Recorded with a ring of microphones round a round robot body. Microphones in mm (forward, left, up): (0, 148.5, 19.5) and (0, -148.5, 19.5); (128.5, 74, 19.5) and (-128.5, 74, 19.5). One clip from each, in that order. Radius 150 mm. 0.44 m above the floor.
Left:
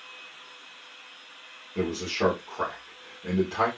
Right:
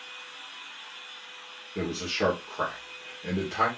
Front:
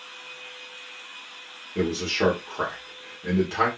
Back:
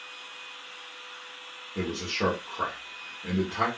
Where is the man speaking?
5° right, 1.6 m.